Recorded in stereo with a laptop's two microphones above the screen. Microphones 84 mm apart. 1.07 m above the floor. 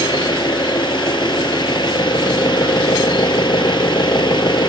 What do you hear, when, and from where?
0.0 s an engine running: 65° left (ahead or behind)